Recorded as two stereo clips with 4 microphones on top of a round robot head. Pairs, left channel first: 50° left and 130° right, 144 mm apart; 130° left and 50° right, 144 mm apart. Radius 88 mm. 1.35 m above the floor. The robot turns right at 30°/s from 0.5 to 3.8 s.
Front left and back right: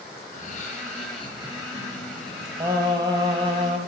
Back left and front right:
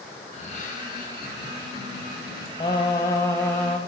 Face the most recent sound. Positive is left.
turn(degrees=-150)